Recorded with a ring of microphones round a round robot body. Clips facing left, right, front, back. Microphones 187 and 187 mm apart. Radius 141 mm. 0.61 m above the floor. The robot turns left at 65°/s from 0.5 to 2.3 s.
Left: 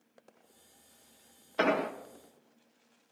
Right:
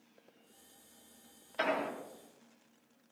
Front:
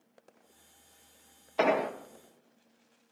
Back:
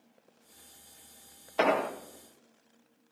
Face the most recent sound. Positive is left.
turn(degrees=45)